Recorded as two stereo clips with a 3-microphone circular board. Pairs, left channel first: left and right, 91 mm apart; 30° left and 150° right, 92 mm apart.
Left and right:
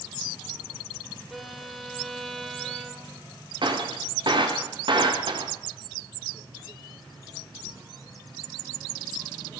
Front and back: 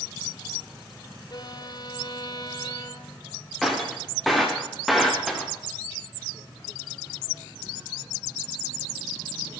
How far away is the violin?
About 2 m.